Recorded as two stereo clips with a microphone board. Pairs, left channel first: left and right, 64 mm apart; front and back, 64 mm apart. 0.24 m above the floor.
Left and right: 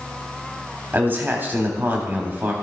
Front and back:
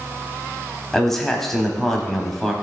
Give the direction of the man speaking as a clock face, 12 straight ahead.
3 o'clock.